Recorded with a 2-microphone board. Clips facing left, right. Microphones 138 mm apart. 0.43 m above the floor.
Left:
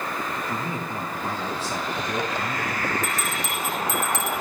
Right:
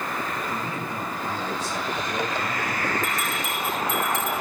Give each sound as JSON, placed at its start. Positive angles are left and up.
{"t": 0.5, "sound": "a man speaking", "side_deg": 30, "distance_m": 4.5}
{"t": 3.0, "sound": "a bell", "side_deg": 75, "distance_m": 3.5}